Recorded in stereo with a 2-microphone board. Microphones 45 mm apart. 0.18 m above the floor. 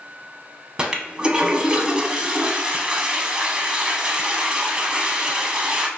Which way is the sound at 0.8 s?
20° right (ahead or behind).